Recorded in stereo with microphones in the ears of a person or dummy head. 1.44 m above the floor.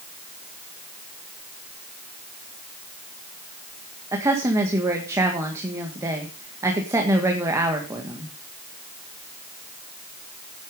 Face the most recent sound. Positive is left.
turn(degrees=-15)  # may be behind; listen again after turning